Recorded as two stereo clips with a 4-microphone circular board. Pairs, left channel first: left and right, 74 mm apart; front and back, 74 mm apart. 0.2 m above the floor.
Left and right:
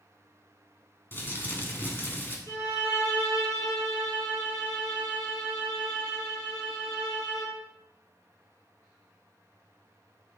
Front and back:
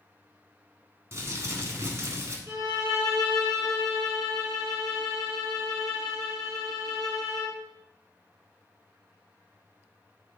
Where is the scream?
I don't hear a scream.